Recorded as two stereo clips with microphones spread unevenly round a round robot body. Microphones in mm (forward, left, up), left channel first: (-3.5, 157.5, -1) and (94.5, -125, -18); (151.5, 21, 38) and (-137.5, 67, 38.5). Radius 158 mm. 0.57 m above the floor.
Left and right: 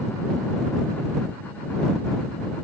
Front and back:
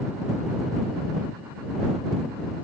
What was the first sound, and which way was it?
Only background noise.